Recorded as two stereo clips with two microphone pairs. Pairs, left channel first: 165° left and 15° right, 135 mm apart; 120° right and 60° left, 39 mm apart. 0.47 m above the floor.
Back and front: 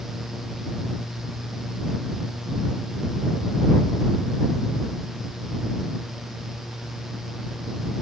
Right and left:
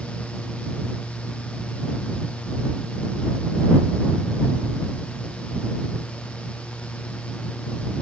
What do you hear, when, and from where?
Only background noise.